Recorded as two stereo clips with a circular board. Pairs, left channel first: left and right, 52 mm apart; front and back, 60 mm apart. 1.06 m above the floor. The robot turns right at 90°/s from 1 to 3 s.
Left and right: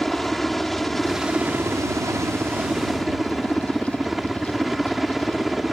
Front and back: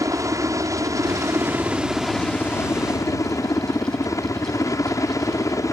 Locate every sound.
0.0 s a helicopter: straight behind; by 5.7 s straight ahead